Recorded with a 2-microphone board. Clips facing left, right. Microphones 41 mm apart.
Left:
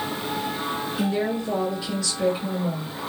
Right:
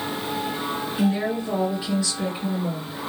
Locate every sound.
1.0 s a woman speaking: 20° right (ahead or behind), 1.7 m; by 3.0 s centre (ahead or behind), 1.8 m